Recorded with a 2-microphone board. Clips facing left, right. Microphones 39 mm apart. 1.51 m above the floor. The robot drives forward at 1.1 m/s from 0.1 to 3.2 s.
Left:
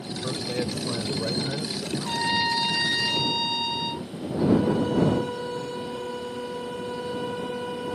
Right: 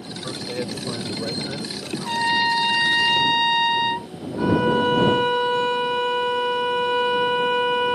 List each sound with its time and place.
0.2 s a man speaking: 5° right (ahead or behind)
2.0 s a trumpet: 25° right (ahead or behind); by 4.1 s 45° right (ahead or behind)
4.4 s a violin: 80° right